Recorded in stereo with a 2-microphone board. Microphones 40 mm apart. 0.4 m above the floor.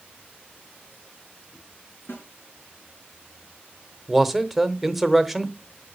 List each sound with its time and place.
2.1 s a snare drum: 75° left (ahead or behind), 4 m
4.1 s a man speaking: 5° right (ahead or behind), 1.1 m